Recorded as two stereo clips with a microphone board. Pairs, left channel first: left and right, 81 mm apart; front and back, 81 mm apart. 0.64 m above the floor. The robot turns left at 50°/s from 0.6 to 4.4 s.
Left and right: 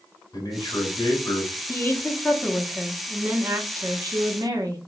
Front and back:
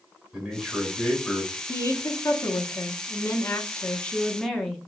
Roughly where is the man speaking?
Left.